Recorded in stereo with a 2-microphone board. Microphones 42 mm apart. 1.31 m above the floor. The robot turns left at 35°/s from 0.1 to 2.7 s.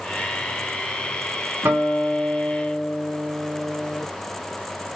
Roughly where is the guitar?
Right.